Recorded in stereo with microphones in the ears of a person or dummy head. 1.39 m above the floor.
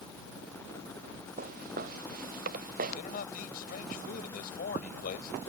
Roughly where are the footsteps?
Right.